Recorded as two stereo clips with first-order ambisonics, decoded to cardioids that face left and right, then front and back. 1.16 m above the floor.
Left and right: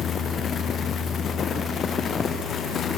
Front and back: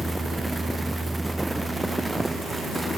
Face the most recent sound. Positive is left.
No sound to turn to.